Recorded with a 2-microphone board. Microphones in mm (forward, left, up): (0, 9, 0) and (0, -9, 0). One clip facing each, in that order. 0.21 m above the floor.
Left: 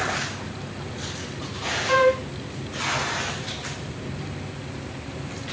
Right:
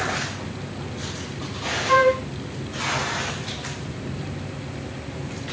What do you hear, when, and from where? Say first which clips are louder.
1.9 s a flute: right 2 dB; 30° left (ahead or behind), 1.6 m